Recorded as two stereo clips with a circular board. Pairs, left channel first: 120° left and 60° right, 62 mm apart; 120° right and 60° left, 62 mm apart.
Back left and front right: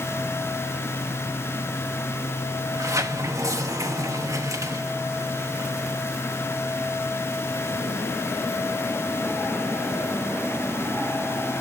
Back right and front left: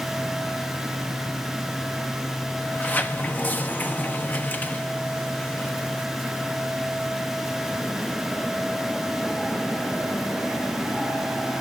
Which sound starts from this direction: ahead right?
A sliding door, at 2.6 s.